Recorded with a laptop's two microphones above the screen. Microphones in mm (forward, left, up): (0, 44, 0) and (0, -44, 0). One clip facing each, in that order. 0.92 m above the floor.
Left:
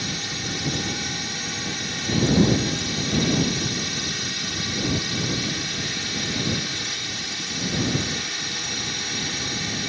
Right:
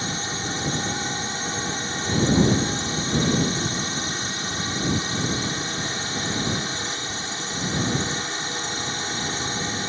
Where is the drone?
30° right (ahead or behind).